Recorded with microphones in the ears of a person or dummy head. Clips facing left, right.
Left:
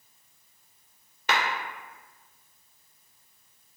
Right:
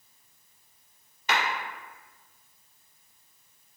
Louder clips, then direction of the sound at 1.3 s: Left 1 dB; 60° left (ahead or behind).